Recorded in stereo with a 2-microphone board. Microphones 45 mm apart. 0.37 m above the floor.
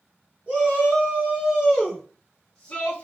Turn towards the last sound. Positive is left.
turn(degrees=25)  # may be behind; listen again after turning